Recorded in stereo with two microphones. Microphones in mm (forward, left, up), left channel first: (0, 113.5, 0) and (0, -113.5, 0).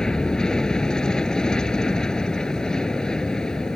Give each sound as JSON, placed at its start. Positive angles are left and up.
{"t": 0.0, "sound": "an aircraft", "side_deg": 5}